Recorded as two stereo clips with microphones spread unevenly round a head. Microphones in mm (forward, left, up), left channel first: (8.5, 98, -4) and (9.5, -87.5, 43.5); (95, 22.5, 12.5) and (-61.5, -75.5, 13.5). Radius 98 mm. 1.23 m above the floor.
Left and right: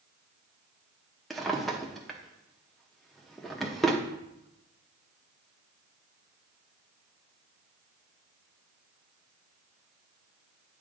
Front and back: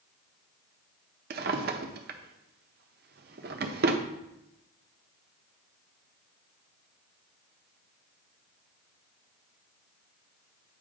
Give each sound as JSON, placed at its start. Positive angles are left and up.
{"t": 1.3, "sound": "a drawer", "azimuth_deg": -170, "distance_m": 0.5}